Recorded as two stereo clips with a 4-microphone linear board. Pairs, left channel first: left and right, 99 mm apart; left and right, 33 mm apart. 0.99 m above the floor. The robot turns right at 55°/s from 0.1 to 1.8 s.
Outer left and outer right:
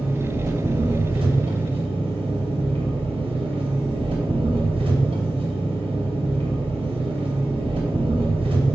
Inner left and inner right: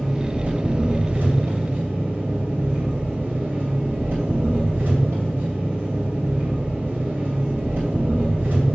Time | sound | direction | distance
0.0 | an engine running | 160° right | 2.5 m